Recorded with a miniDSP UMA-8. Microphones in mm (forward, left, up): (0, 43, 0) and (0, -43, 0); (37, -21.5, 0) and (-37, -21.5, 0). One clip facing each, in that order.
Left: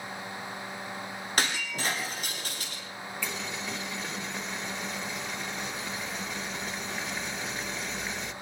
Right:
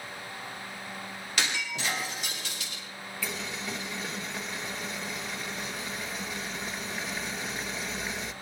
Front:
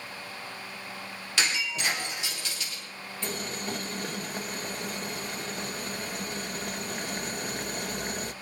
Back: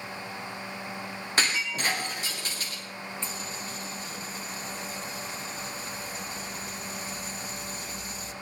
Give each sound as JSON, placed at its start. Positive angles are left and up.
{"t": 1.4, "sound": "breaking glass", "azimuth_deg": 135, "distance_m": 10.0}
{"t": 3.2, "sound": "boiling", "azimuth_deg": 0, "distance_m": 1.3}